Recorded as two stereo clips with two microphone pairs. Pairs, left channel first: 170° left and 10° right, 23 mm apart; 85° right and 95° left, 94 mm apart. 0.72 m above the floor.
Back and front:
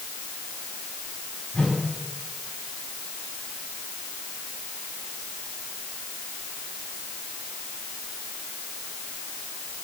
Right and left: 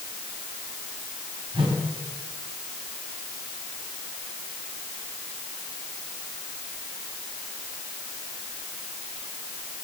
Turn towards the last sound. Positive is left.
turn(degrees=115)